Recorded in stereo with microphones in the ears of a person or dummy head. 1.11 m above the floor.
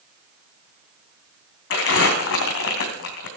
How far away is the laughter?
I don't hear laughter.